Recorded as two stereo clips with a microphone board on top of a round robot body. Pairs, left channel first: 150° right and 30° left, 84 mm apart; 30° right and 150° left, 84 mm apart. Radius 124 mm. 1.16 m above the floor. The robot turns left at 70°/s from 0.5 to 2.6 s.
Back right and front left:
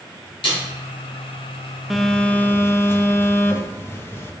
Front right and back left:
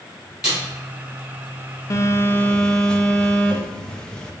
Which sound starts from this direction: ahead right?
A phone buzzing, at 1.9 s.